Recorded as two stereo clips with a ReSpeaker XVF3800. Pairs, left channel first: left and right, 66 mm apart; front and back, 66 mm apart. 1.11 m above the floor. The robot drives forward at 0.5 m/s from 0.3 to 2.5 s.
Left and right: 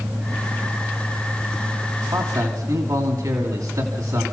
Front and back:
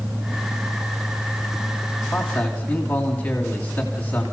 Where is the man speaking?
65° right, 2.5 m; by 4.2 s 70° right, 2.5 m.